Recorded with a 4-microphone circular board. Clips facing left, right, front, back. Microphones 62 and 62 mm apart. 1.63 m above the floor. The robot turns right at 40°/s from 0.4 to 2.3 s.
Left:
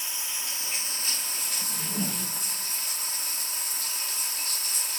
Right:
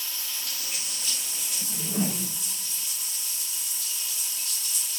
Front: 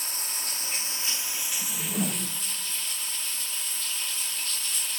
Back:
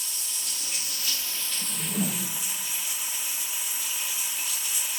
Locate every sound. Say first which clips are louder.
0.0 s running water: left 1 dB, front 3 dB; 30° left, 1.4 m; by 5.0 s 105° left, 1.4 m
1.6 s a whoosh: right 5 dB, even; 75° right, 0.5 m; by 2.4 s 50° right, 0.5 m